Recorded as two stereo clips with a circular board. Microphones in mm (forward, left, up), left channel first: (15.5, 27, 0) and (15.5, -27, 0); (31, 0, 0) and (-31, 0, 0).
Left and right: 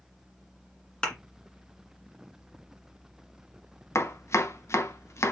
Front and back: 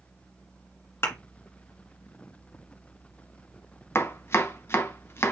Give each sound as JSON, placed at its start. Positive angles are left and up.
{"t": 1.0, "sound": "a thud", "azimuth_deg": 20, "distance_m": 2.0}
{"t": 4.0, "sound": "chopping", "azimuth_deg": 50, "distance_m": 0.8}